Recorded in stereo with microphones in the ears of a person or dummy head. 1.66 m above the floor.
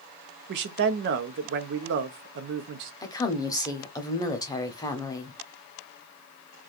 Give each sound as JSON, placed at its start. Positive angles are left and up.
{"t": 0.5, "sound": "a man speaking", "side_deg": -60, "distance_m": 0.6}
{"t": 3.0, "sound": "a woman speaking", "side_deg": 20, "distance_m": 0.7}